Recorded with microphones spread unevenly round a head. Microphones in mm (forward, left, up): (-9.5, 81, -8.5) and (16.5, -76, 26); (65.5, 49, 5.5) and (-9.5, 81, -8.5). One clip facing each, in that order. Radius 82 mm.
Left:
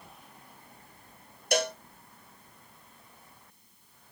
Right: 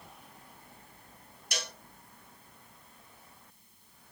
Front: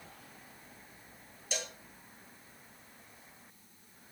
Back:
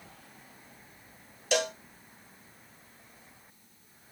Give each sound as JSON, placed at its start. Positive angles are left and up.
{"t": 1.5, "sound": "a cowbell", "azimuth_deg": 140, "distance_m": 0.6}